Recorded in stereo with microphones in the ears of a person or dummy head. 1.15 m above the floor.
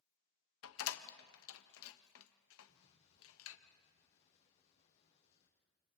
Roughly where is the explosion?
Left.